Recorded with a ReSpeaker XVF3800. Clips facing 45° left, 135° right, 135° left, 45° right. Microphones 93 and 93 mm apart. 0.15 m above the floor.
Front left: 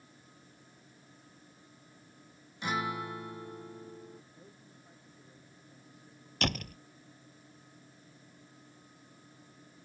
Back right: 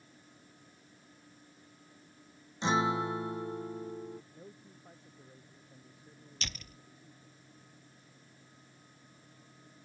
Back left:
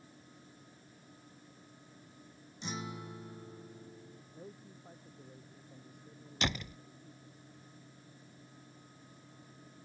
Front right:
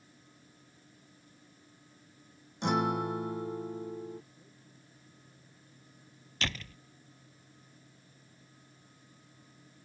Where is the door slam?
65° left.